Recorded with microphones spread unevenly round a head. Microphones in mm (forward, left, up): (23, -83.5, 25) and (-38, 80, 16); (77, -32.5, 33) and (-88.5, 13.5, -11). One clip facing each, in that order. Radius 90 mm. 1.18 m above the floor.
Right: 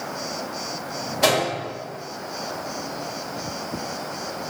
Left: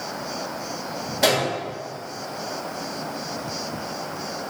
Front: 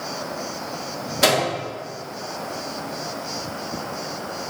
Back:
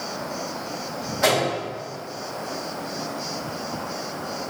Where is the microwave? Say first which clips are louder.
Even, front 1 dB; 25° left, 1.1 m.